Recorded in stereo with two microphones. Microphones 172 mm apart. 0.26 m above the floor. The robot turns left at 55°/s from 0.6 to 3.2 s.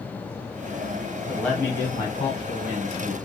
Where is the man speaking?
Straight behind, 1.7 m; by 3.1 s 75° left, 1.7 m.